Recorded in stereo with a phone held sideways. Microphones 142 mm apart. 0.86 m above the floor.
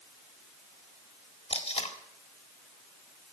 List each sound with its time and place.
1.5 s tape being pulled: 50° left (ahead or behind), 1.7 m